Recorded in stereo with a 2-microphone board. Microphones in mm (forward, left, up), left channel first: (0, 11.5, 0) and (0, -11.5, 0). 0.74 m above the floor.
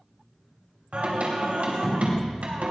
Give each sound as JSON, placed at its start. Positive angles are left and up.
{"t": 0.9, "sound": "singing", "side_deg": -65, "distance_m": 3.0}